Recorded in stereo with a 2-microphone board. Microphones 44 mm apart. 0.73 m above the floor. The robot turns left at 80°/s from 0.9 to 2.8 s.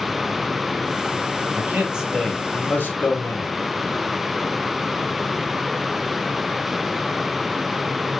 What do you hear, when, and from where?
1.6 s a man speaking: 135° right, 3.5 m; by 3.5 s 125° left, 3.5 m